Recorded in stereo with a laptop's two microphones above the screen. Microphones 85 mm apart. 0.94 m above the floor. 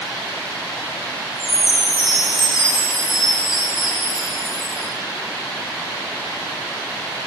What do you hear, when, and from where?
1.4 s a chime: 35° left (ahead or behind), 4 m